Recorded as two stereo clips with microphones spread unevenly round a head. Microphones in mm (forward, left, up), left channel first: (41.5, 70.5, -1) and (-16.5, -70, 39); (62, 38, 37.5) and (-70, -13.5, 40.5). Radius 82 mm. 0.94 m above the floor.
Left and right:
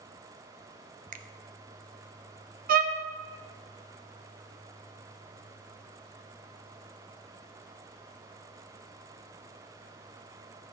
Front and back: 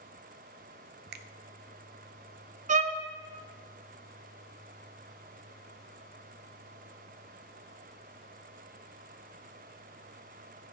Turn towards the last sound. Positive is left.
turn(degrees=-145)